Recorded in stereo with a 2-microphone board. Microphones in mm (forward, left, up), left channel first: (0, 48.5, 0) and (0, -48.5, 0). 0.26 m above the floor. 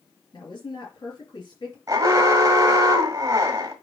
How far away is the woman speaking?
About 4.5 m.